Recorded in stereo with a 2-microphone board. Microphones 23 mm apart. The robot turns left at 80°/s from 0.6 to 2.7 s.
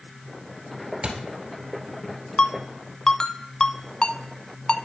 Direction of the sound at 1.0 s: 70° right (ahead or behind).